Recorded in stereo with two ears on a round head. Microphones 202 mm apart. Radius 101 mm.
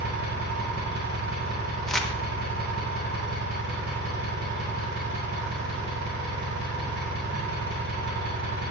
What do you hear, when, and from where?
0.0 s an engine running: 50° right (ahead or behind), 4 m
1.9 s crumpling: centre (ahead or behind), 1.0 m